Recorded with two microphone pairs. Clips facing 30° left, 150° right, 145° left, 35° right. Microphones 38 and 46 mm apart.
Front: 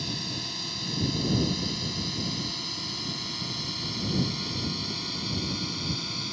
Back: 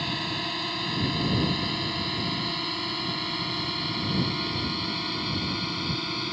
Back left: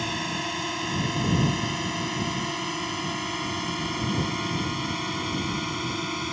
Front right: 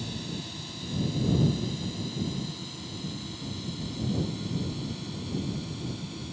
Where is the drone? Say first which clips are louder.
Back 5 dB, back left 8 dB; 160° left; by 6.3 s 145° left.